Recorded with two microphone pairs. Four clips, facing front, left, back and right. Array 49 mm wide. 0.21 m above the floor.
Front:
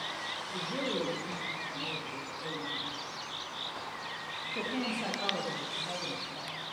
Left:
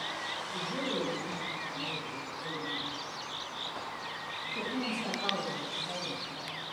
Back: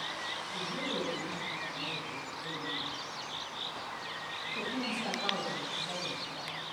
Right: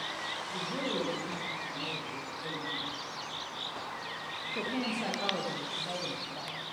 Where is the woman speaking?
20° right, 6 m; by 6.6 s 65° right, 4 m.